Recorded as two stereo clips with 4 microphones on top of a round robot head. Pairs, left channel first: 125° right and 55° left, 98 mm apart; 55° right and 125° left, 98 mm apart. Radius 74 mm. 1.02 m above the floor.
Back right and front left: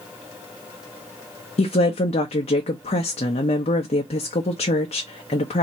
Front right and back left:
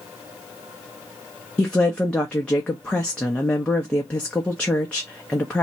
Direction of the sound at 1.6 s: 135° right.